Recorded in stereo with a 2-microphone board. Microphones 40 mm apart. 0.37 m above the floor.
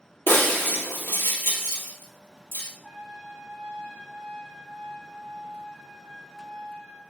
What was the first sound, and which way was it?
Breaking glass, 75° left (ahead or behind).